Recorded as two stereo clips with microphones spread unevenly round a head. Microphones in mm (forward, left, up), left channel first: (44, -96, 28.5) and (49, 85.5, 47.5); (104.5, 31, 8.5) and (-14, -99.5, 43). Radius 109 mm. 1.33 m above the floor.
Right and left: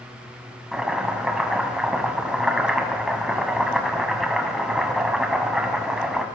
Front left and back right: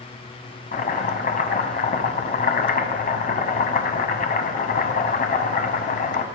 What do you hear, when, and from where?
0.7 s chopping: 5° left, 1.8 m